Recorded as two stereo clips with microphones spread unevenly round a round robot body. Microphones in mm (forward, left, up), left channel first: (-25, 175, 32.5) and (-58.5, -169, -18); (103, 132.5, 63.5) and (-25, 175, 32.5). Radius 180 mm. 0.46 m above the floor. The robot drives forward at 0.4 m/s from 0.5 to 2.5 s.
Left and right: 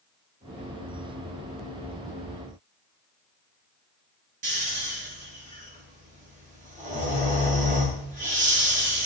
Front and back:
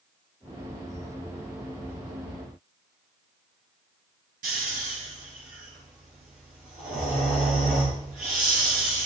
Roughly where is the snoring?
Behind.